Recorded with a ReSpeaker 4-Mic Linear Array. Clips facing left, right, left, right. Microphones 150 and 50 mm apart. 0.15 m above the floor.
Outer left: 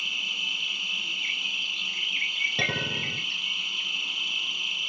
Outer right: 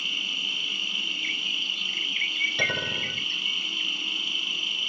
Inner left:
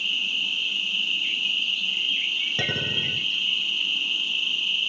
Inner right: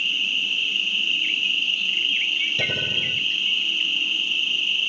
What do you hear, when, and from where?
0.0 s an insect: 55° right (ahead or behind), 0.7 m
2.6 s a clink: 45° left (ahead or behind), 1.6 m